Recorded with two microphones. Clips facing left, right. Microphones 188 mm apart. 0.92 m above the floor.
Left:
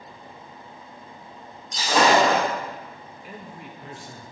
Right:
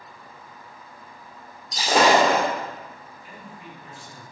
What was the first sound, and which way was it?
Breaking glass, 35° right (ahead or behind).